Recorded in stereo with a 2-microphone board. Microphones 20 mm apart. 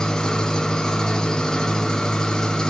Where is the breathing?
I don't hear breathing.